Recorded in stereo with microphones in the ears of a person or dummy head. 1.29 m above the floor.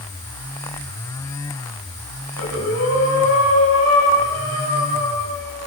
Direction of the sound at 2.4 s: 75° left (ahead or behind).